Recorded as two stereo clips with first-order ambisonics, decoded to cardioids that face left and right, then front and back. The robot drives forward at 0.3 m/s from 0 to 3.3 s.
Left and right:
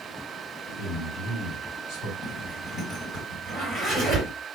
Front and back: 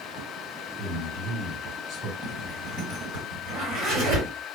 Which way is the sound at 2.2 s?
Straight behind.